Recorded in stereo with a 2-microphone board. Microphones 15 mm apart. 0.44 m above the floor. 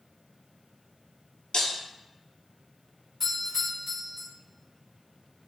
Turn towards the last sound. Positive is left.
turn(degrees=5)  # may be behind; listen again after turning